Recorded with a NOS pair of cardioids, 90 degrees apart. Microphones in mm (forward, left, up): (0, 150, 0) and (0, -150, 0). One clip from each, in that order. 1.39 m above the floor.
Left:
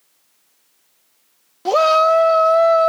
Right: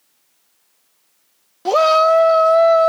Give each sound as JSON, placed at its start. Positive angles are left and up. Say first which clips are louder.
{"t": 1.6, "sound": "a shout", "louder": "right 1 dB", "azimuth_deg": -10}